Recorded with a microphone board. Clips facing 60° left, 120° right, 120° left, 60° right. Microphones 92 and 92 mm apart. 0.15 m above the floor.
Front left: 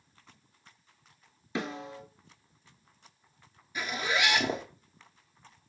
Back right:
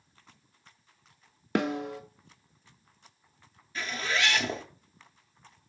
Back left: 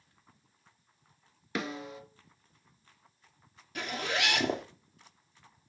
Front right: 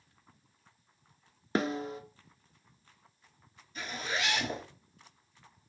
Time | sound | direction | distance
1.6 | a snare drum | 110° right | 0.6 m
3.8 | a zipper | 135° left | 0.9 m